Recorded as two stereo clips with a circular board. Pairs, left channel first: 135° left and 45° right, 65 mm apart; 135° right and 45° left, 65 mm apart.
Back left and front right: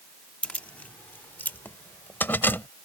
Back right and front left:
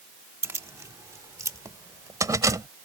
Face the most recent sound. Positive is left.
turn(degrees=75)